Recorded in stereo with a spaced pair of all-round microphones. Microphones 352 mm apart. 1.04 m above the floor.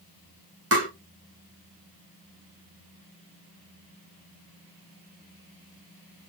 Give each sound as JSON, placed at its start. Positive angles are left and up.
{"t": 0.7, "sound": "tapping", "side_deg": -40, "distance_m": 1.5}